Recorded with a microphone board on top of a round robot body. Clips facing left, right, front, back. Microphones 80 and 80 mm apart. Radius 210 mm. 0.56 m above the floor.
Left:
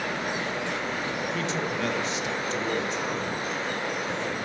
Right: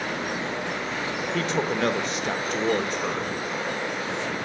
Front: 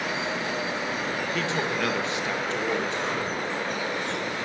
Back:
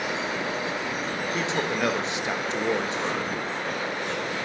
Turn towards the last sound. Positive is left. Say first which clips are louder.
# right 4 dB, back 2 dB
turn(degrees=-115)